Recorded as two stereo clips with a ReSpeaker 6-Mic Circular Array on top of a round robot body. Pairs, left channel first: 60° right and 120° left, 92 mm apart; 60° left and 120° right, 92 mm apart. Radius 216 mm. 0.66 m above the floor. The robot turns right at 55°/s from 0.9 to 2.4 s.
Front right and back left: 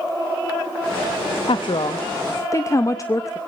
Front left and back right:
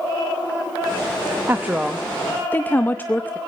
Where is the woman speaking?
60° right, 1.1 m; by 3.4 s 10° right, 1.1 m.